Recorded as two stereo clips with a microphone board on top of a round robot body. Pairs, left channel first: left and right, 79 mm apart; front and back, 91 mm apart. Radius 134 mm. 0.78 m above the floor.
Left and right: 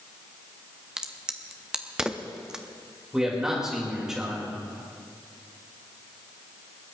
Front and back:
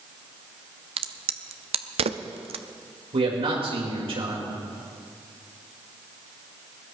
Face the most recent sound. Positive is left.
turn(degrees=-175)